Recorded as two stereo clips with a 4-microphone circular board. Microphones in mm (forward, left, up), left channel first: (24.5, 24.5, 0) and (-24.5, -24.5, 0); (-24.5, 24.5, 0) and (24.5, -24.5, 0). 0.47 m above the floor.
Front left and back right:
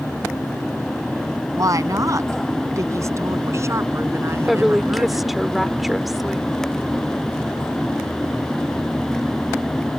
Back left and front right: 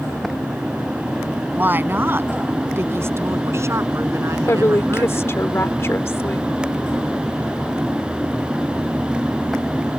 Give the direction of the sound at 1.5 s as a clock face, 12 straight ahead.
3 o'clock.